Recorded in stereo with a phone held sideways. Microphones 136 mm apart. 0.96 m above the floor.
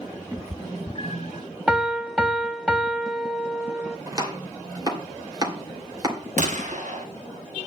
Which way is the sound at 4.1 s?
25° right (ahead or behind).